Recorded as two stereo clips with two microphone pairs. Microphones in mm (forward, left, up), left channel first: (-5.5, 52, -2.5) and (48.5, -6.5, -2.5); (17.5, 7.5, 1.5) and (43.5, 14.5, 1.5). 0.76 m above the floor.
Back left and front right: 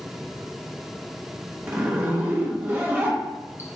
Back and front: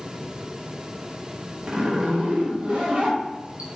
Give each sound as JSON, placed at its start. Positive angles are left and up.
{"t": 1.7, "sound": "a zipper", "azimuth_deg": 5, "distance_m": 0.6}